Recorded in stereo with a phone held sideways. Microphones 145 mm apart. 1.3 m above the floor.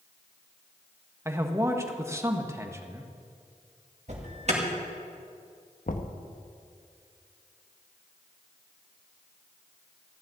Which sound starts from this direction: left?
Knocking, at 5.9 s.